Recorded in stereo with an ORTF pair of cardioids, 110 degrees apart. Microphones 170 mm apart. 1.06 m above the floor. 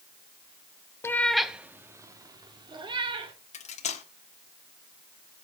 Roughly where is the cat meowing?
Ahead.